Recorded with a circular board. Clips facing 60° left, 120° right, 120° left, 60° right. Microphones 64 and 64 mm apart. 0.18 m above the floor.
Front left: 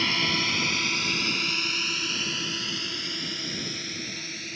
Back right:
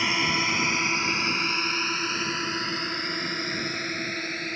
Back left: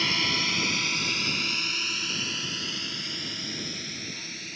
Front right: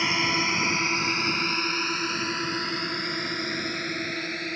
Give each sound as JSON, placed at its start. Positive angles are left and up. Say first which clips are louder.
{"t": 0.0, "sound": "a drone", "louder": "back right 2 dB, front right 3 dB", "azimuth_deg": -75}